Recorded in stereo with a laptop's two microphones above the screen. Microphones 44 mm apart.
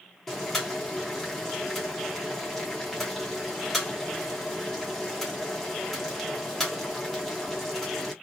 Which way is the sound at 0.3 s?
5° left (ahead or behind).